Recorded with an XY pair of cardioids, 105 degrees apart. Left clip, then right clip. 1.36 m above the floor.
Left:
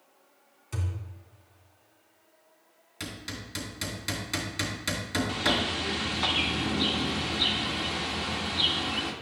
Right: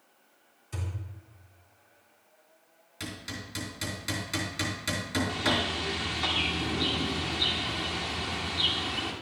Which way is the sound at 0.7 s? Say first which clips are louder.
Left 2 dB; 55° left.